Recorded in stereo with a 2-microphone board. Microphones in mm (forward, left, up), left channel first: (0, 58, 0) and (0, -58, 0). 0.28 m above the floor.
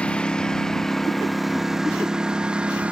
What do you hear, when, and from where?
0.0 s a lawn mower: 10° left (ahead or behind); by 2.9 s 10° right (ahead or behind)